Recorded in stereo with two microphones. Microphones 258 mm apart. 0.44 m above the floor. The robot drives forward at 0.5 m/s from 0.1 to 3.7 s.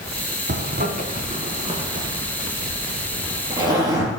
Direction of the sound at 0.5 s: 45° right (ahead or behind).